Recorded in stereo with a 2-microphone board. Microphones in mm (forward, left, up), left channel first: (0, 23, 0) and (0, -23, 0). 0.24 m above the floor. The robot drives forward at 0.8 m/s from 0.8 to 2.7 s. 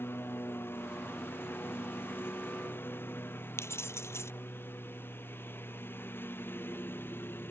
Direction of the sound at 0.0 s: 50° left (ahead or behind).